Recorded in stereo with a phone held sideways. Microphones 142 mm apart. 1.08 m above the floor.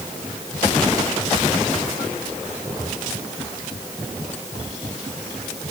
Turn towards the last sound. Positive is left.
No sound to turn to.